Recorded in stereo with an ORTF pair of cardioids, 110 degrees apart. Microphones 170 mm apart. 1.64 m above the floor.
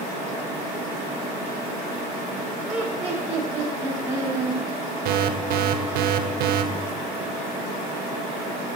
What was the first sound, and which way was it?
Laughter, 5° right.